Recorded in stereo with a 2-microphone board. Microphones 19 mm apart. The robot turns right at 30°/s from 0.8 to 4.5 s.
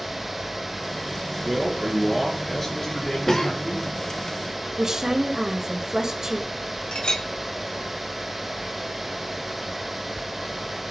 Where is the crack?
No crack in this recording.